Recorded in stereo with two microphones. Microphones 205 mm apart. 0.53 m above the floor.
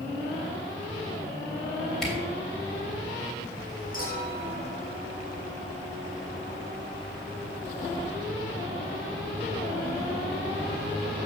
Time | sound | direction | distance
2.0 | a camera shutter | 5° left (ahead or behind) | 3 m
3.9 | a clink | 40° left (ahead or behind) | 4 m